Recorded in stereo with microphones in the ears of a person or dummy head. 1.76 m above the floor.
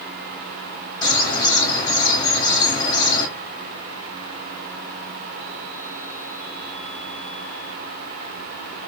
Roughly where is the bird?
Left.